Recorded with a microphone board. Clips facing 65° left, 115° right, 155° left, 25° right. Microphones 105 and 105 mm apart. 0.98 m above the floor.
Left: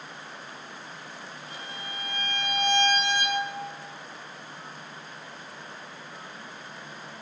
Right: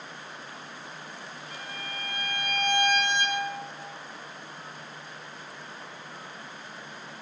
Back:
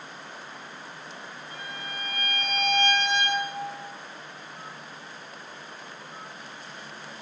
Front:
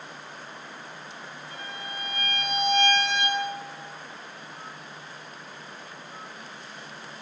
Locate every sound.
1.5 s a violin: 130° left, 1.3 m